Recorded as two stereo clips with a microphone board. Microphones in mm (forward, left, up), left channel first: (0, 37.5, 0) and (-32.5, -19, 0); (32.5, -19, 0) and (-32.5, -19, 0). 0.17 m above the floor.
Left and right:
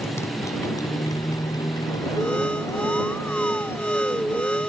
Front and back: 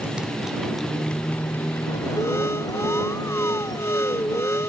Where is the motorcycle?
110° left; by 4.7 s 5° right.